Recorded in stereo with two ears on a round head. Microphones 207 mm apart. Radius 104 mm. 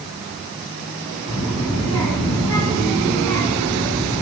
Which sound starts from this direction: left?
A child speaking, at 1.3 s.